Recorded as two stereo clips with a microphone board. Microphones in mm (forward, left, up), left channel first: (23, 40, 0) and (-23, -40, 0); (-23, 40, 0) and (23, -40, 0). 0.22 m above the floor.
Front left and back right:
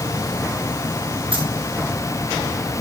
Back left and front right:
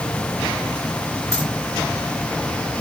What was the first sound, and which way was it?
A dropped coin, 120° right.